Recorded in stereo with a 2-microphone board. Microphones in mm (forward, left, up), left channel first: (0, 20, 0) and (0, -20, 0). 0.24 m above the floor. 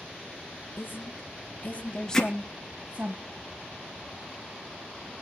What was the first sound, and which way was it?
A woman speaking, 65° left (ahead or behind).